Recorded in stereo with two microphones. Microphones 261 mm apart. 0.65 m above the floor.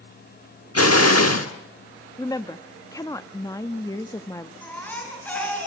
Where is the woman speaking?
15° left (ahead or behind), 0.7 m.